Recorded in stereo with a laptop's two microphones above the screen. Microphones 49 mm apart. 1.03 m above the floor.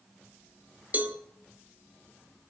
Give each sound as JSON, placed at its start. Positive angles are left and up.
{"t": 0.9, "sound": "a cowbell", "side_deg": -30, "distance_m": 1.1}